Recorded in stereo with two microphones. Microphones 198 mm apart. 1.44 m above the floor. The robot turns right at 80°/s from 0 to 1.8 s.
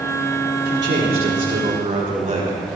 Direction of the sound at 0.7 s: 130° right.